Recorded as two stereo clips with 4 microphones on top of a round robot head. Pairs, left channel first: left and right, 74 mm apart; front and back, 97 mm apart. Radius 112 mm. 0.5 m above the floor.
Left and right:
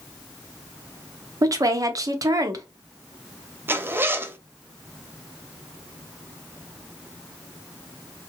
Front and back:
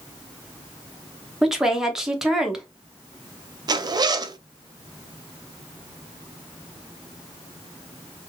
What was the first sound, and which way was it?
A woman speaking, 95° right.